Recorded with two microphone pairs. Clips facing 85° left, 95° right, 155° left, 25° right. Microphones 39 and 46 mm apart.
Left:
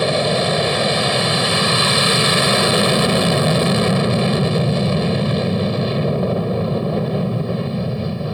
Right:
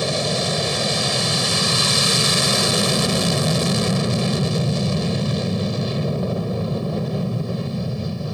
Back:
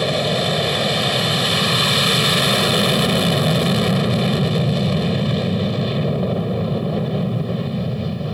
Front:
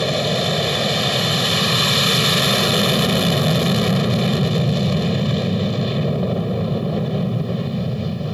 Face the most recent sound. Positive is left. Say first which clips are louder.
# left 5 dB, back 1 dB
turn(degrees=75)